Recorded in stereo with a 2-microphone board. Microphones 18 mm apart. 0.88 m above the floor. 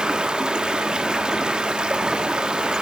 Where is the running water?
60° right (ahead or behind), 1.7 m.